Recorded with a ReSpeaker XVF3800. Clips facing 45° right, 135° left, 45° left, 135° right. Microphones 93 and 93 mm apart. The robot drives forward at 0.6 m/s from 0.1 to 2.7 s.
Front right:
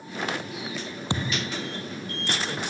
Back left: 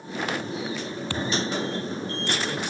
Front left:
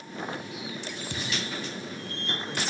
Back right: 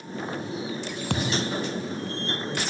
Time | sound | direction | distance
1.1 | a thud | 115° right | ?